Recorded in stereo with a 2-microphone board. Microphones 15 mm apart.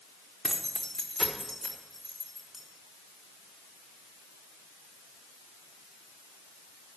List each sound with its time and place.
0.4 s keys jangling: 45° left (ahead or behind), 1.2 m; by 2.6 s 5° right (ahead or behind), 2.5 m